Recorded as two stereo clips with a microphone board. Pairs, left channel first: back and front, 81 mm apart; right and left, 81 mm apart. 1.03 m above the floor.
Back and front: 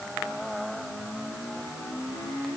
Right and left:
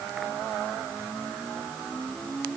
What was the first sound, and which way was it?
Only background noise.